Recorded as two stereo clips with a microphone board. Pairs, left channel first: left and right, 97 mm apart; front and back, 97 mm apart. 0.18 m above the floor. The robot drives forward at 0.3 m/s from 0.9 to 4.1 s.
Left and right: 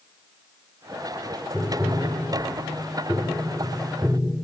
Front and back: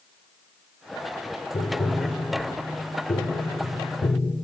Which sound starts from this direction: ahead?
Tapping, at 1.5 s.